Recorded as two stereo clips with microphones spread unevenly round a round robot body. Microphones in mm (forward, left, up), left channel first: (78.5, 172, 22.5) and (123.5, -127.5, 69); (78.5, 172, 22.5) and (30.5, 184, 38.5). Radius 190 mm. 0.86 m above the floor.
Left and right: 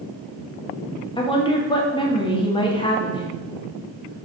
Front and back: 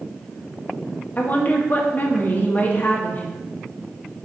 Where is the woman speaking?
30° left, 1.7 m.